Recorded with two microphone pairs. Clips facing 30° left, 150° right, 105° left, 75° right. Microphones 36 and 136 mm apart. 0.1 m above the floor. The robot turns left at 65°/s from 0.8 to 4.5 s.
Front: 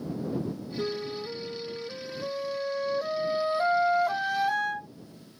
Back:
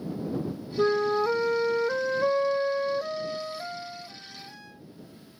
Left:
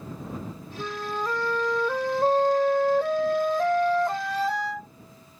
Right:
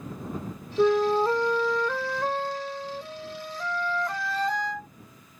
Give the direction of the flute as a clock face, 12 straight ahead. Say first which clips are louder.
Back 11 dB, right 11 dB; 3 o'clock.